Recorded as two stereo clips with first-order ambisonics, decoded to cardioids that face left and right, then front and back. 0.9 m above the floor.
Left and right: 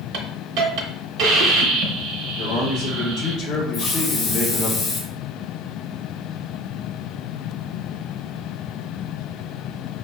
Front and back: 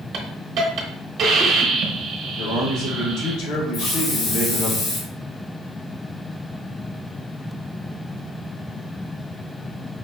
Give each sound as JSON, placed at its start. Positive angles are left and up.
{"t": 0.1, "sound": "a hiss", "azimuth_deg": -125, "distance_m": 0.8}
{"t": 2.4, "sound": "a man speaking", "azimuth_deg": 35, "distance_m": 2.0}
{"t": 3.7, "sound": "a hiss", "azimuth_deg": 35, "distance_m": 1.3}